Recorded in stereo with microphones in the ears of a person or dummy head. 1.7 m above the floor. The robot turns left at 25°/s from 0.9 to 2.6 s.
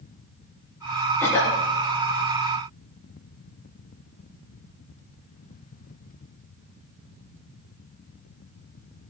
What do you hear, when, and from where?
1.2 s a cough: 15° left (ahead or behind), 3.5 m; by 1.6 s 25° left (ahead or behind), 3.5 m